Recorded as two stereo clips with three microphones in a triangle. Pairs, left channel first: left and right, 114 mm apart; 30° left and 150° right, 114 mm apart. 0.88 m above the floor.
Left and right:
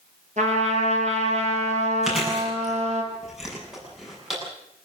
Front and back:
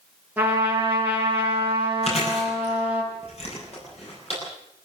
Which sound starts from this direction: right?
A trumpet, at 0.4 s.